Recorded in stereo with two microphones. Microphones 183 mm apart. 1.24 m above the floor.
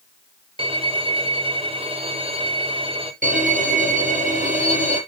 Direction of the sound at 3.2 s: 45° right (ahead or behind).